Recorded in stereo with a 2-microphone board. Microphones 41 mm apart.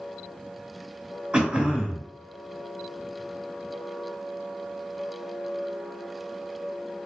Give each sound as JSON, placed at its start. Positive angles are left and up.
{"t": 1.3, "sound": "throat clearing", "side_deg": -25, "distance_m": 0.7}